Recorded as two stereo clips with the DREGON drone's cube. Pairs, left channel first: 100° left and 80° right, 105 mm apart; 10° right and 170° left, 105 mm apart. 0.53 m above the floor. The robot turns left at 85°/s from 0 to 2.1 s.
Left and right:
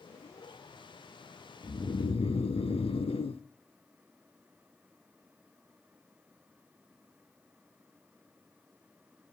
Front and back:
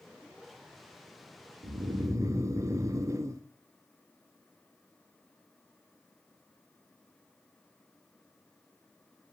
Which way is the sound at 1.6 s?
155° left.